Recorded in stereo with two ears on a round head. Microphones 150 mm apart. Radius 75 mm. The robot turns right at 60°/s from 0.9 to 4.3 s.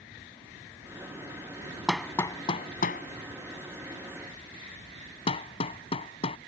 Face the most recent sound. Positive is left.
turn(degrees=40)  # may be behind; listen again after turning